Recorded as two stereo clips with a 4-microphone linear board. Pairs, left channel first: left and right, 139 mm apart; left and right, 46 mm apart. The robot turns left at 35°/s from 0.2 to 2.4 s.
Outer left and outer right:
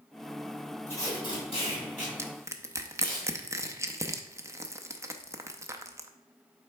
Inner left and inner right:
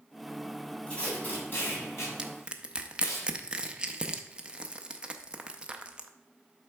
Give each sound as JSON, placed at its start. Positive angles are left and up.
{"t": 0.9, "sound": "tape being pulled", "side_deg": 15, "distance_m": 3.0}
{"t": 2.2, "sound": "crushing", "side_deg": -15, "distance_m": 0.5}